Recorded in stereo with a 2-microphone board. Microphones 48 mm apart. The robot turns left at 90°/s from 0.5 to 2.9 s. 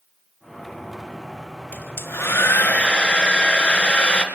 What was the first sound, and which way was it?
A hair dryer, 135° left.